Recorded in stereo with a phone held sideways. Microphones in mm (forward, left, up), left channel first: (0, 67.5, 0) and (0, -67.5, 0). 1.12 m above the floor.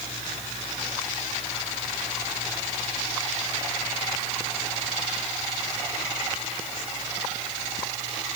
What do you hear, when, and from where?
Only background noise.